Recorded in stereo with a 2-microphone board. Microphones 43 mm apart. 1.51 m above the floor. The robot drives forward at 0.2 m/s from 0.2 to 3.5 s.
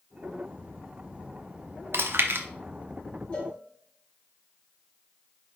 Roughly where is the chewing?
Right.